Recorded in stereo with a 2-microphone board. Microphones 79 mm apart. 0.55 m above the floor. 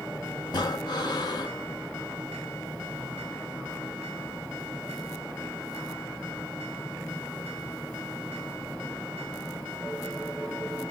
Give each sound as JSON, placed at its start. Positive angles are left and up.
{"t": 0.5, "sound": "breathing", "side_deg": 55, "distance_m": 0.7}